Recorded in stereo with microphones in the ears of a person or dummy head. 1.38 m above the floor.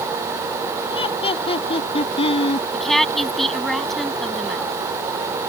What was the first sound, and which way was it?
Laughter, 30° left (ahead or behind).